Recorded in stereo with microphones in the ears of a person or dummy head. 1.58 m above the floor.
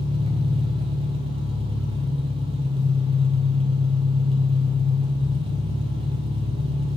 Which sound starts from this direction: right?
An engine running, at 0.0 s.